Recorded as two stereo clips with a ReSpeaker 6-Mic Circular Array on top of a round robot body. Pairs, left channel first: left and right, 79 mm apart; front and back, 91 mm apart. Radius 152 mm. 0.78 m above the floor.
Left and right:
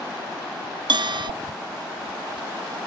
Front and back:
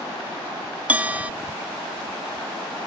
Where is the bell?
105° right.